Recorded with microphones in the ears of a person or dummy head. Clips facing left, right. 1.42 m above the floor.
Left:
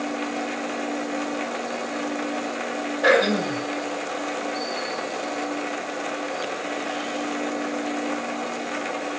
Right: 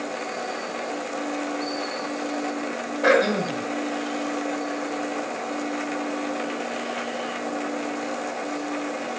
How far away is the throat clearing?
About 1.6 m.